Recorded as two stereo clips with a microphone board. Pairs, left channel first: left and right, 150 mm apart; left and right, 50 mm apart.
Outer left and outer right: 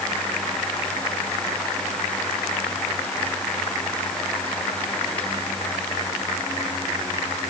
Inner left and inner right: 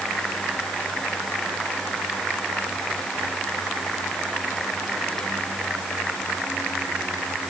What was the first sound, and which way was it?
Only background noise.